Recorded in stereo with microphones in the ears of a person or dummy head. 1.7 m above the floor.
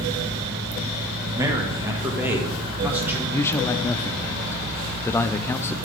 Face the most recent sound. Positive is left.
turn(degrees=15)  # may be behind; listen again after turning